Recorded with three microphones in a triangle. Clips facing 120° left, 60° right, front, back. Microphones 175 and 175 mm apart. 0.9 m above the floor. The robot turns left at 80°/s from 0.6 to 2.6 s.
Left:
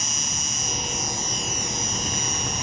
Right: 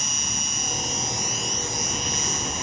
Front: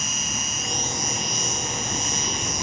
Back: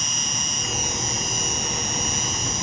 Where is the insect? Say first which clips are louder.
Even, even; 85° right; by 2.6 s 115° left.